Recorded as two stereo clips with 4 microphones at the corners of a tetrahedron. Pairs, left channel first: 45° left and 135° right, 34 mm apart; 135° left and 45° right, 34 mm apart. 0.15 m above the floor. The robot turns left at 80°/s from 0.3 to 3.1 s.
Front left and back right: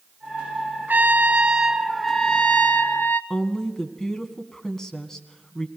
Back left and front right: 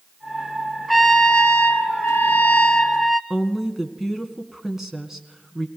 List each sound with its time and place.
0.9 s a trumpet: 140° right, 1.1 m; by 3.2 s 45° left, 1.1 m
3.3 s a woman speaking: 5° left, 1.5 m